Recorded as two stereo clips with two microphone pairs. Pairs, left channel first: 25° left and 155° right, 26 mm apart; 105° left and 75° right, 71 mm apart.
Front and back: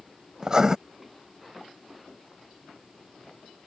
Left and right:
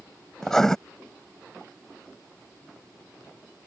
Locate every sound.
0.4 s writing: straight behind